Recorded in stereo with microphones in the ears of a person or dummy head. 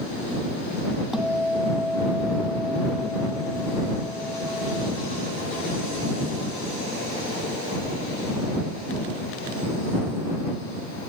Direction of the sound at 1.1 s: 5° right (ahead or behind).